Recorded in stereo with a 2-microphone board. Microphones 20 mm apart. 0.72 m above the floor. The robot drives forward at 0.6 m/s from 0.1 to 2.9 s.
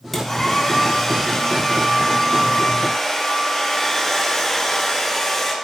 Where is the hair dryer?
10° left (ahead or behind), 3 m; by 5.5 s 5° left (ahead or behind), 5 m.